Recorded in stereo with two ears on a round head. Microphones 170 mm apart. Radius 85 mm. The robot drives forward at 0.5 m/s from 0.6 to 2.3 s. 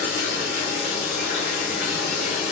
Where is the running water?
45° left (ahead or behind), 1.6 m.